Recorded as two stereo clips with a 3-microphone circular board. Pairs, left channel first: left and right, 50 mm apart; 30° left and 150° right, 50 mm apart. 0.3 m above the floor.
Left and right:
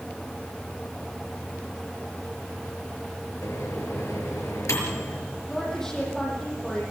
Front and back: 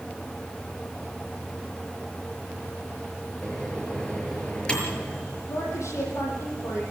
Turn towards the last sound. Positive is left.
turn(degrees=10)